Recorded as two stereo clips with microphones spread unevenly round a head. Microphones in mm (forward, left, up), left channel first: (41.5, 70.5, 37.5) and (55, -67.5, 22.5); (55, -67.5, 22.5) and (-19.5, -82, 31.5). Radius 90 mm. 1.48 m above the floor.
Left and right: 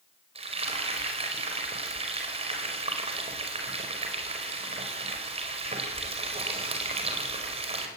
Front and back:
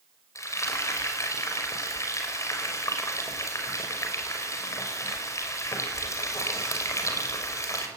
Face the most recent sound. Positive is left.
turn(degrees=-40)